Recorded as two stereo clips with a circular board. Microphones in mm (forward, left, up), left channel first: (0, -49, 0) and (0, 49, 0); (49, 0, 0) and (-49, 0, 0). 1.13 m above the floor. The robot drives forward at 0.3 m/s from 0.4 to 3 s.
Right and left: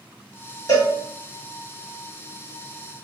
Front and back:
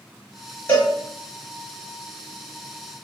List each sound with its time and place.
0.7 s a cowbell: 60° right, 1.3 m; by 0.9 s 65° right, 1.2 m